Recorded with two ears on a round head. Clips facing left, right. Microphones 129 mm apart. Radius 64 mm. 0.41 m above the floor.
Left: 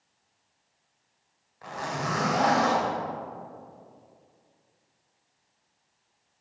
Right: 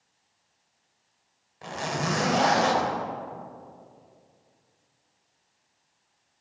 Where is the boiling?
I don't hear boiling.